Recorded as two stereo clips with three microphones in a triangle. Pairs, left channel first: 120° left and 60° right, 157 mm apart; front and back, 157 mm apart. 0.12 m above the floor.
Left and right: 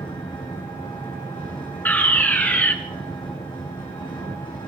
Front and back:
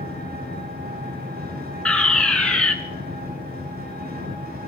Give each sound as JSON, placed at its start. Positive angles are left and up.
{"t": 0.0, "sound": "an engine running", "azimuth_deg": 180, "distance_m": 7.0}
{"t": 1.9, "sound": "a fire alarm", "azimuth_deg": 70, "distance_m": 2.5}